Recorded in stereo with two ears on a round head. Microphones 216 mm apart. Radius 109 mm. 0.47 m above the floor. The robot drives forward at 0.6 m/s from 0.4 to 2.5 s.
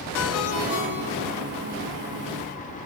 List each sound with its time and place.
0.1 s a ringtone: 65° left (ahead or behind), 4 m; by 1.4 s 70° left (ahead or behind), 3.5 m